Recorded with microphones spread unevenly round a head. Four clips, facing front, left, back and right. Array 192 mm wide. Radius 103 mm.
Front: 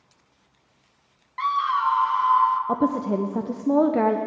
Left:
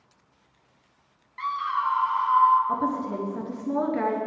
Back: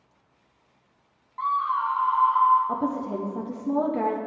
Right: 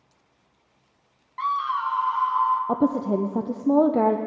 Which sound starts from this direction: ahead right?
A woman speaking, at 2.7 s.